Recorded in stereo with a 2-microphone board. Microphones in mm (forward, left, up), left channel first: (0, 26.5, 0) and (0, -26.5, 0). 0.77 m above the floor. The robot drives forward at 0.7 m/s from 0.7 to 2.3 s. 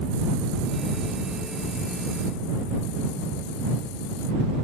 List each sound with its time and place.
Only background noise.